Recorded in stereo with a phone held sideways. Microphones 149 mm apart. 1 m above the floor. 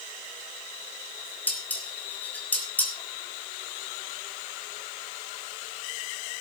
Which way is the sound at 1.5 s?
10° left (ahead or behind).